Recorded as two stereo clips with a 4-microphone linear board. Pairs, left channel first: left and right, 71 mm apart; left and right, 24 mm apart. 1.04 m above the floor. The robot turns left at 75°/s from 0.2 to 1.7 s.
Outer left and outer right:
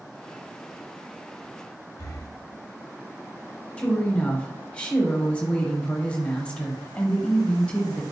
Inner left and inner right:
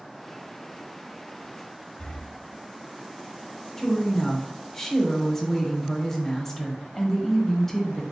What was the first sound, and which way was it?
Breathing, 50° left (ahead or behind).